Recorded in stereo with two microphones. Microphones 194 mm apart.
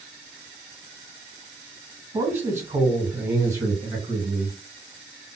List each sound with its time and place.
2.1 s a man speaking: 10° right (ahead or behind), 1.9 m; by 4.6 s 15° right (ahead or behind), 1.6 m